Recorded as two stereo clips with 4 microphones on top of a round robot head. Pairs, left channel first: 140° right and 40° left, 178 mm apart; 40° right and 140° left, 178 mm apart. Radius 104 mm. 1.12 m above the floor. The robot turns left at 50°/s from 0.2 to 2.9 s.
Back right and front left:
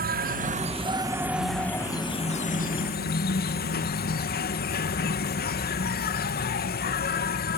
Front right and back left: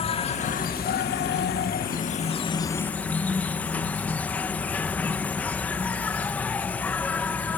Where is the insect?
15° left; by 7.6 s 120° right.